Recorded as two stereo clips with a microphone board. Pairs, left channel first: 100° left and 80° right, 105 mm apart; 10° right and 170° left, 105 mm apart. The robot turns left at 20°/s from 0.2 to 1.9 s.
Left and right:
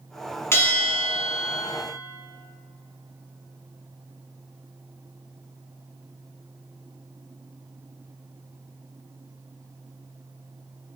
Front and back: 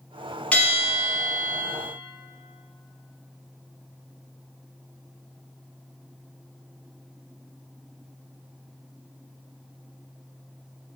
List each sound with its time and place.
0.5 s a bell: 55° left, 0.5 m; by 1.6 s 35° left, 0.5 m